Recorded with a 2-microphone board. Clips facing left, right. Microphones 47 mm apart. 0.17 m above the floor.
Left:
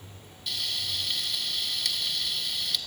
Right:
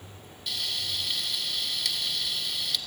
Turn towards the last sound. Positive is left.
turn(degrees=0)  # may be behind; listen again after turning